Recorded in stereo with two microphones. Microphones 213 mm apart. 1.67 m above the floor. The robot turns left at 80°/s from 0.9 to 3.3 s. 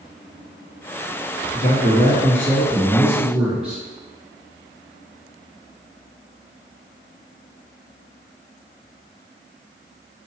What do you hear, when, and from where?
1.5 s a man speaking: 135° left, 1.8 m; by 3.8 s 5° right, 1.8 m